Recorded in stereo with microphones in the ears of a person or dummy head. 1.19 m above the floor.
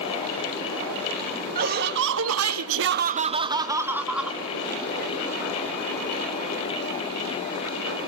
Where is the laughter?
50° right (ahead or behind), 1.8 m; by 4.4 s centre (ahead or behind), 2.5 m.